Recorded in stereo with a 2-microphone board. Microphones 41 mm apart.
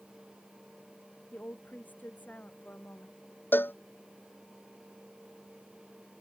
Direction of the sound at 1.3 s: 45° left (ahead or behind).